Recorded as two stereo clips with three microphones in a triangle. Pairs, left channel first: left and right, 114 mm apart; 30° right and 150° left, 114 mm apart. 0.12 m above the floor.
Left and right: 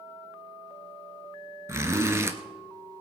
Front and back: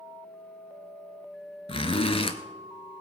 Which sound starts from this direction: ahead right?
A zipper, at 1.7 s.